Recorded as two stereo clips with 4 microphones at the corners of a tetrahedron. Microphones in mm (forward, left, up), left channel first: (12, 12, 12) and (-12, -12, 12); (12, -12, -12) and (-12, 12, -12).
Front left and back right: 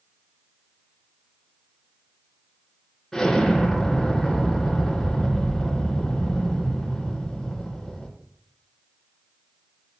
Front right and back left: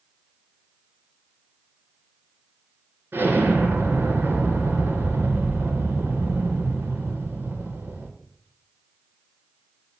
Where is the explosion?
125° left, 2.5 m.